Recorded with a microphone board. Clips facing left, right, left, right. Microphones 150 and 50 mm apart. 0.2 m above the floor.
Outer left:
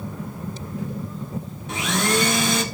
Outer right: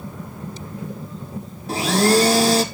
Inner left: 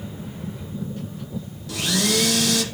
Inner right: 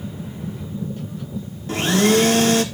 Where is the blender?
35° right (ahead or behind), 1.2 m.